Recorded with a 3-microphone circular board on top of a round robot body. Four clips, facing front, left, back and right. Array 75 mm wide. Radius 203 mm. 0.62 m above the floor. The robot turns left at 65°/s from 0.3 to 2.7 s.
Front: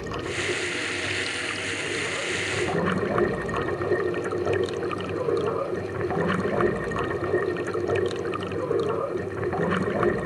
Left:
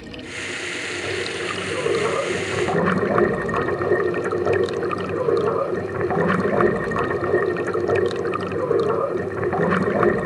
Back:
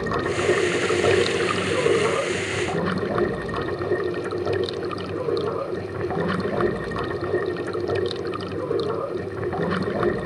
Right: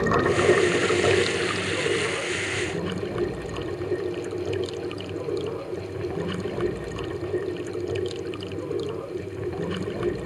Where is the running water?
110° right; by 10.3 s 90° left.